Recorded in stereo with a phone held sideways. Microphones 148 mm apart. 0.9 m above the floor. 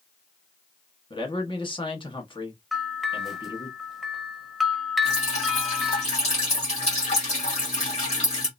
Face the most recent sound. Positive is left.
turn(degrees=45)  # may be behind; listen again after turning